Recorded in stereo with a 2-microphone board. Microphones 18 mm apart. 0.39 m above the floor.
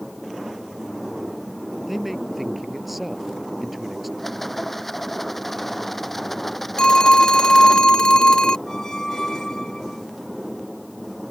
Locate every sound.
1.9 s a man speaking: 5° right (ahead or behind)
4.2 s a rattle: 10° left (ahead or behind)
6.8 s a phone ringing: 50° left (ahead or behind)
8.7 s a squeak: 35° left (ahead or behind)